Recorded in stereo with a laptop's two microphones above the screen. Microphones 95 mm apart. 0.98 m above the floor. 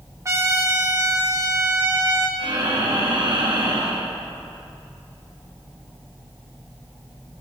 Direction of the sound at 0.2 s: 30° right (ahead or behind).